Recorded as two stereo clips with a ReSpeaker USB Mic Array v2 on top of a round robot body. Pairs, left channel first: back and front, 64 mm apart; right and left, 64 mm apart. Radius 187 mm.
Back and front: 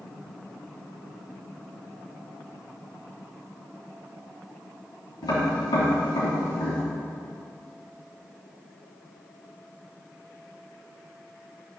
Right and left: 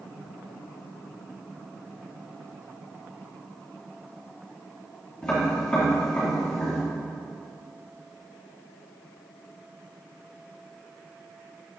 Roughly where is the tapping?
Behind.